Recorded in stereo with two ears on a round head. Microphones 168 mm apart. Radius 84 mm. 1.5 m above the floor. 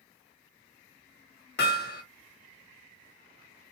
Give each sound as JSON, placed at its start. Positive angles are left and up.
{"t": 1.6, "sound": "hammering", "side_deg": 60, "distance_m": 1.5}